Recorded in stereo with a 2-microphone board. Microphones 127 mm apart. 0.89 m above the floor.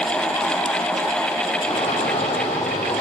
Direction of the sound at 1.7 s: 60° left (ahead or behind).